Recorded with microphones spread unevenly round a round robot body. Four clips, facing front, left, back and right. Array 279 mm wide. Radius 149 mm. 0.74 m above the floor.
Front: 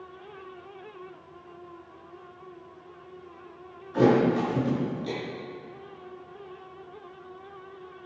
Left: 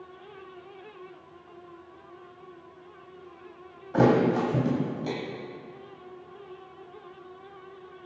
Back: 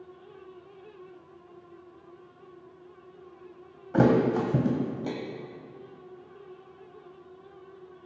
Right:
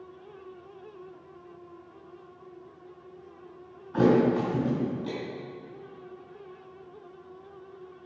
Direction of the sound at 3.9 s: 175° left.